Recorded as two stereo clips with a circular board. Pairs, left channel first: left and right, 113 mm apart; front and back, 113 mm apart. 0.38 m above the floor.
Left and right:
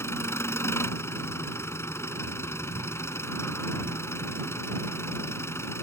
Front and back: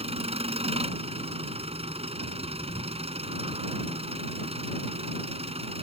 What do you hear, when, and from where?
0.0 s an engine running: 155° left